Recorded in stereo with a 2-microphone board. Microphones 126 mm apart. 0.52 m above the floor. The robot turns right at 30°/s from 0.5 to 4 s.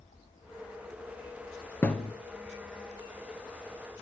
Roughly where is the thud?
Centre.